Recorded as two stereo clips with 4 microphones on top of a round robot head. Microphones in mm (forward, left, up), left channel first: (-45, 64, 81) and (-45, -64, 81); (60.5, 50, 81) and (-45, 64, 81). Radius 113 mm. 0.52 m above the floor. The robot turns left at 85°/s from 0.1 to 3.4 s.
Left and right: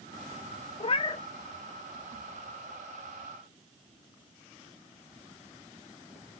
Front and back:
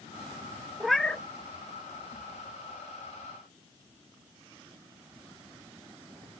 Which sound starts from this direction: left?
A cat meowing, at 0.8 s.